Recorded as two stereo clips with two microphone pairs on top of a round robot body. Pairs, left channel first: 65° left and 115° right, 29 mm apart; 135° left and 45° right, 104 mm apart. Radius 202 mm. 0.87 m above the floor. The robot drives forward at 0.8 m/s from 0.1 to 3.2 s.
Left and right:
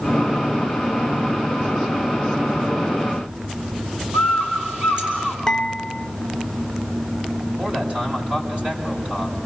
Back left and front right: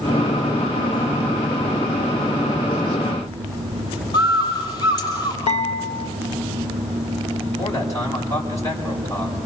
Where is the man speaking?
165° right, 7 m.